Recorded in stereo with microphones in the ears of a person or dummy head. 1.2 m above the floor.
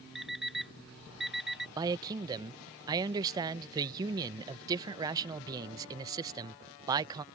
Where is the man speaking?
20° right (ahead or behind).